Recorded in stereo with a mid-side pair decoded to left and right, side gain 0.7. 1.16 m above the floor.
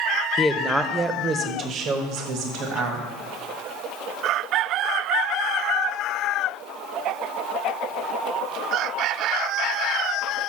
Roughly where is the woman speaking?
Ahead.